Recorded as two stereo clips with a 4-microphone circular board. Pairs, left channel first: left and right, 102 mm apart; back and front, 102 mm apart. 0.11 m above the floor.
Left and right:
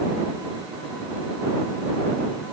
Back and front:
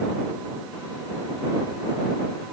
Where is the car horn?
No car horn in this recording.